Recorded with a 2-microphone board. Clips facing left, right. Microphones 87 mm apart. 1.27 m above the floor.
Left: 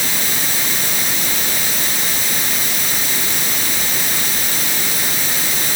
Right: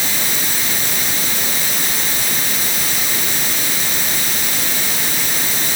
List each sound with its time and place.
Only background noise.